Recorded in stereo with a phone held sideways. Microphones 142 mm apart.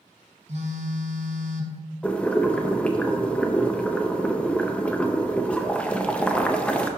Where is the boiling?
10° left (ahead or behind), 0.7 m.